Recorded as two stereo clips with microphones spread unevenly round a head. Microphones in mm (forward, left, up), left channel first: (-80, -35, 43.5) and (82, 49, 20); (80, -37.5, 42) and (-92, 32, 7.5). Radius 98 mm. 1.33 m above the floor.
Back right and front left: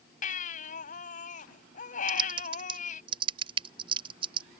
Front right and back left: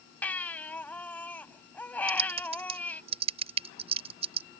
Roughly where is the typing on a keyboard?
Left.